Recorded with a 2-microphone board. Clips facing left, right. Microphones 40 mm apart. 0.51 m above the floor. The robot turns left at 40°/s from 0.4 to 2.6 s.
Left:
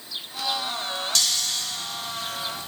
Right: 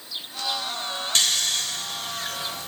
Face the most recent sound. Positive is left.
turn(degrees=-70)  # may be behind; listen again after turning